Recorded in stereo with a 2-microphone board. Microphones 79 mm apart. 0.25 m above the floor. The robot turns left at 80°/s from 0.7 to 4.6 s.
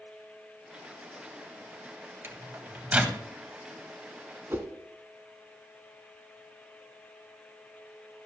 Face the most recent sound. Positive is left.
turn(degrees=-35)  # may be behind; listen again after turning